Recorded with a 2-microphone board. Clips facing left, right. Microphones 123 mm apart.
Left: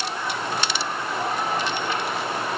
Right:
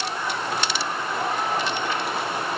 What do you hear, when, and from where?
Only background noise.